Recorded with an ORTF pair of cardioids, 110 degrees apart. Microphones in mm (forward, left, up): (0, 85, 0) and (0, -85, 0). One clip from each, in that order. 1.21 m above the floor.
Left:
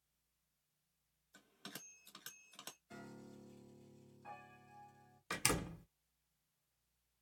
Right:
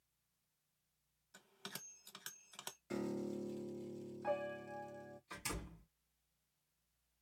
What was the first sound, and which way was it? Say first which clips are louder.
A bell: right 2 dB; 20° right.